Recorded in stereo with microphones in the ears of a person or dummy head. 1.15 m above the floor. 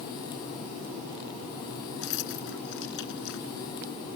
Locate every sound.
2.0 s keys jangling: 70° left (ahead or behind)